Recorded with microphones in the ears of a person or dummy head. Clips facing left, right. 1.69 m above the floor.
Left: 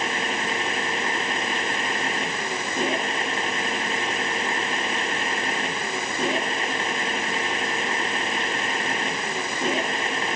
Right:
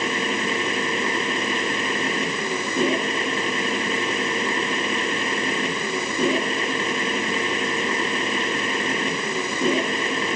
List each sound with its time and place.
0.0 s a machine running: 85° right